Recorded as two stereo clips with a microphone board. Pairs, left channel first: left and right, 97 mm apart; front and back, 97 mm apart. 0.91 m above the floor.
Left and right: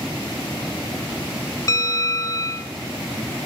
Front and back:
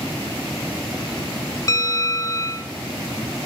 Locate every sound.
1.7 s a bell: 45° left, 1.0 m